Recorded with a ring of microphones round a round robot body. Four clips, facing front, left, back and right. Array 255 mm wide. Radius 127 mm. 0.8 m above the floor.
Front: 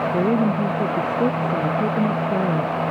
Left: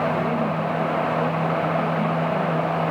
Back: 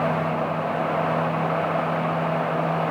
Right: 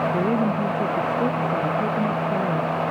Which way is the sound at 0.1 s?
25° right.